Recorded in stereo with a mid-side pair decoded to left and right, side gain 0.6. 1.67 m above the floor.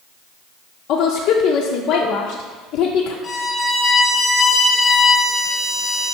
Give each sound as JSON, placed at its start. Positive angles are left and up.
{"t": 0.9, "sound": "a woman speaking", "azimuth_deg": 65, "distance_m": 0.7}
{"t": 3.2, "sound": "a violin", "azimuth_deg": 20, "distance_m": 1.3}